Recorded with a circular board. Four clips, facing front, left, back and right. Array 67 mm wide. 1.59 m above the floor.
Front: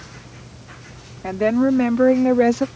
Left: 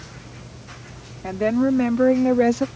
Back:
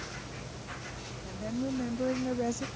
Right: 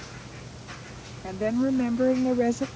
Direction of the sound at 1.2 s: 15° left.